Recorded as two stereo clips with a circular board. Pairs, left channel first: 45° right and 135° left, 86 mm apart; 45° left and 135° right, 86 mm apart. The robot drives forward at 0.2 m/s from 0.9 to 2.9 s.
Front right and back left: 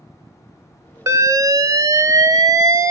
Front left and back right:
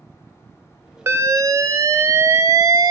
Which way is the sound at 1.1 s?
175° left.